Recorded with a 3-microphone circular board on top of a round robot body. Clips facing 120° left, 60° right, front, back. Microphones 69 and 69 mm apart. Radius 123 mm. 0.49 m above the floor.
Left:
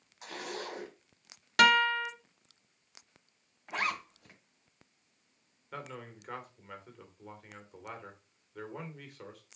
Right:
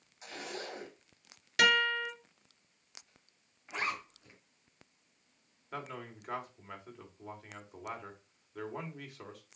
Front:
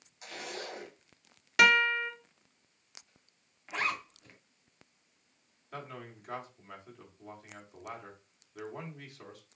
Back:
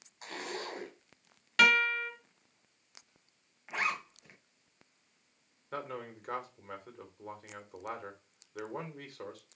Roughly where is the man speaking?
Behind right.